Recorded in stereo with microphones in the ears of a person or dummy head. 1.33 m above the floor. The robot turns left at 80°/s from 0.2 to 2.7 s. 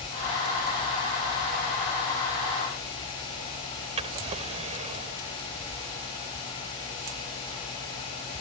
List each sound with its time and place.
4.0 s a drawer: 35° right (ahead or behind)